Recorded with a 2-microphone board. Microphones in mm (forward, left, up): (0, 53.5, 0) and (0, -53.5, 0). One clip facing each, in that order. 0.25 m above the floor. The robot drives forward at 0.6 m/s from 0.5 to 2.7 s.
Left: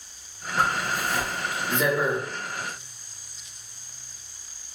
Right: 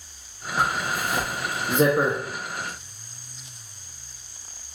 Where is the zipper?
20° right (ahead or behind), 1.3 m; by 2.2 s 60° right (ahead or behind), 0.5 m.